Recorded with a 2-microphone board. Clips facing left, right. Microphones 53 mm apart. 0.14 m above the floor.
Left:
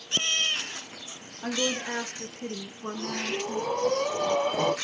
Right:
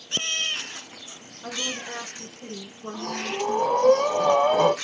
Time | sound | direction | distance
1.4 | a woman speaking | 60° left (ahead or behind) | 2.5 m
2.9 | breathing | 65° right (ahead or behind) | 1.9 m